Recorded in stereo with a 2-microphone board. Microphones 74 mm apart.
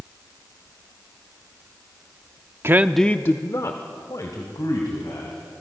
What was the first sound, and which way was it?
A man speaking, 40° right (ahead or behind).